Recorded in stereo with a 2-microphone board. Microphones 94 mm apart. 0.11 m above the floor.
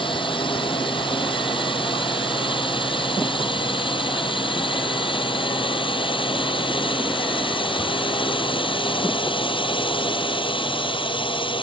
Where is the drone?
60° left (ahead or behind).